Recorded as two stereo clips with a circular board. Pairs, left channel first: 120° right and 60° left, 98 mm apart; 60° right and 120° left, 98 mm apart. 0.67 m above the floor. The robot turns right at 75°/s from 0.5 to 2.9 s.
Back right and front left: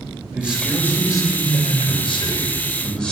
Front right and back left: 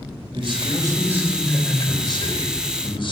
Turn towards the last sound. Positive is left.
turn(degrees=-40)